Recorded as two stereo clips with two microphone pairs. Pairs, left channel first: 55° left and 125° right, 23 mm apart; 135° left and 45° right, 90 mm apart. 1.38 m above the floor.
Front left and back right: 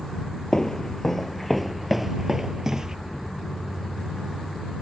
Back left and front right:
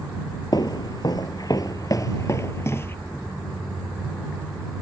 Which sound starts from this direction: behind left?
Footsteps, at 0.5 s.